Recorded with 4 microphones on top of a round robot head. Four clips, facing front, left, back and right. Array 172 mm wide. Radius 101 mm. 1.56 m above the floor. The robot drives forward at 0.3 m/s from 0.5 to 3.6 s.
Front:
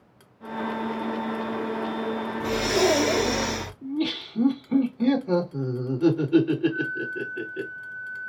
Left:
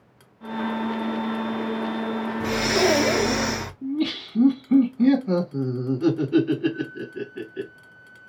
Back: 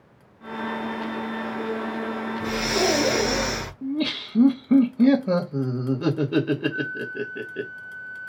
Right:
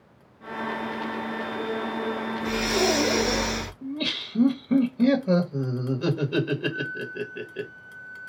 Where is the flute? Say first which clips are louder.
Left 1 dB, even; 165° right, 1.4 m.